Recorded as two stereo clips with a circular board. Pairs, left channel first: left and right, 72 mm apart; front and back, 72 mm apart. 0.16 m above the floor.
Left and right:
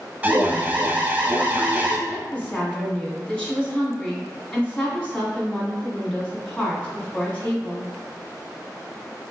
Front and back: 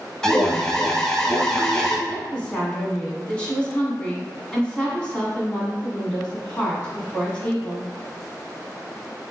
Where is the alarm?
65° right, 0.7 m.